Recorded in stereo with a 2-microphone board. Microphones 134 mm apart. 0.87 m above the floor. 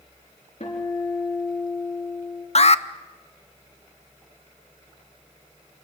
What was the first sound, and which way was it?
A guitar, 50° left (ahead or behind).